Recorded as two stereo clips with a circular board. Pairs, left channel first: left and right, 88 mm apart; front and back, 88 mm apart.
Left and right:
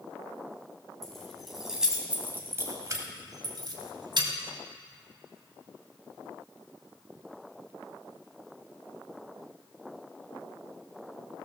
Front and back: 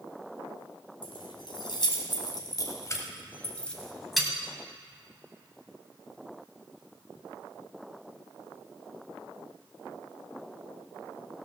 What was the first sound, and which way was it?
Keys jangling, 5° left.